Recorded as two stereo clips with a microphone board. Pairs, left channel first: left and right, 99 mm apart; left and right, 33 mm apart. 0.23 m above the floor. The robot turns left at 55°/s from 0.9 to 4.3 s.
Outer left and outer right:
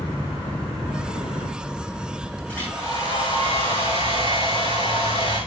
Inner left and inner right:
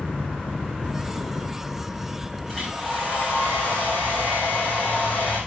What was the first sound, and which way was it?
A hair dryer, 170° left.